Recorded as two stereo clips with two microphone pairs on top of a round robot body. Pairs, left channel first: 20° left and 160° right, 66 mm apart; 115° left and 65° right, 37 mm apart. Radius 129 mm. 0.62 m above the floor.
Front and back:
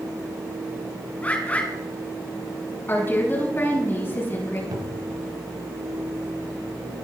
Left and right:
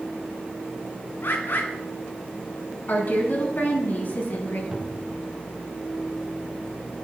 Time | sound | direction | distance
1.2 | a bird | 90° left | 2.5 m
2.9 | a woman speaking | 80° left | 8 m
4.7 | a cupboard door | 145° right | 1.9 m